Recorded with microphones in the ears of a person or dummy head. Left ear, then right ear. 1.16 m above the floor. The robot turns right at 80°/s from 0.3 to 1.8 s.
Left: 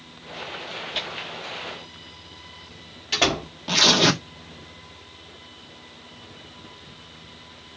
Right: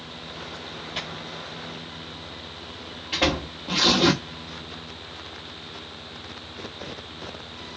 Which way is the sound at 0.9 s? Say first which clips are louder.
Left 3 dB; 20° left (ahead or behind).